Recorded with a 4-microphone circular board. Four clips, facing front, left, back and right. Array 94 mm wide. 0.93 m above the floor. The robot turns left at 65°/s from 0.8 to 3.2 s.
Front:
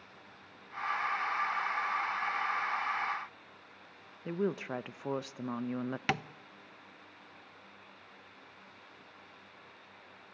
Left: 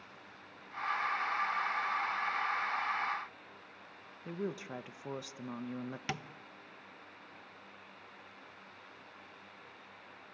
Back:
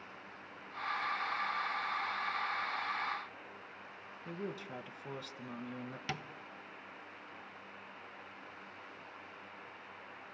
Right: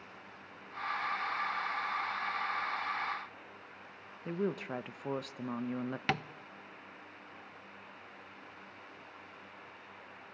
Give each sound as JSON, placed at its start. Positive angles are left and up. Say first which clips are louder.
{"t": 4.2, "sound": "a woman speaking", "louder": "right 4 dB, front 9 dB", "azimuth_deg": -25, "distance_m": 0.6}
{"t": 6.1, "sound": "tapping", "louder": "right 8 dB, front 8 dB", "azimuth_deg": -35, "distance_m": 0.5}